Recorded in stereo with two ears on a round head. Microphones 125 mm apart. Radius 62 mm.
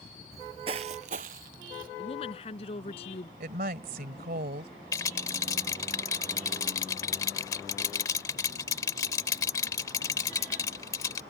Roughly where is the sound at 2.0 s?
Left.